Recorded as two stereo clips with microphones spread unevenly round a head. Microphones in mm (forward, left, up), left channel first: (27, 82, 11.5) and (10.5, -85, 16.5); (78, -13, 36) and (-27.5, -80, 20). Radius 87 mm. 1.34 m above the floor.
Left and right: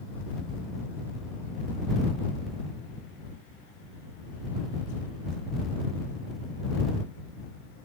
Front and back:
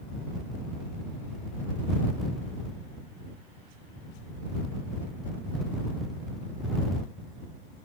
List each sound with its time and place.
Only background noise.